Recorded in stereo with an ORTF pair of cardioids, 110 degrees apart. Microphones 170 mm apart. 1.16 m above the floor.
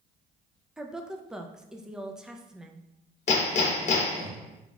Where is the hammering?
40° left, 1.0 m.